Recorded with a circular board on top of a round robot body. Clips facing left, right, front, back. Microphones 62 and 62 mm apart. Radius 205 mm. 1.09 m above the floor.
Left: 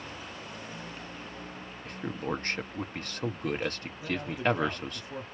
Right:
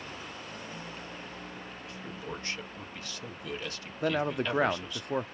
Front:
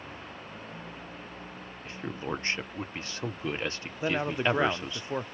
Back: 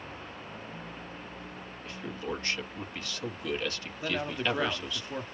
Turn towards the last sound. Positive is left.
turn(degrees=-65)